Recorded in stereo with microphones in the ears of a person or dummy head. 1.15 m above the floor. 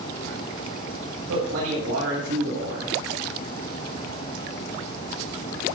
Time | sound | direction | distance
1.3 | a man speaking | 85° right | 7 m